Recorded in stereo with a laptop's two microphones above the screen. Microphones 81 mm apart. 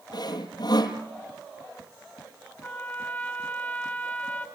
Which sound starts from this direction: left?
Sawing, at 0.1 s.